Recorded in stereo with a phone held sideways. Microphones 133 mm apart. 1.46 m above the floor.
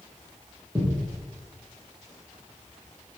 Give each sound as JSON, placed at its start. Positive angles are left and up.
{"t": 0.8, "sound": "a thud", "side_deg": 10, "distance_m": 4.0}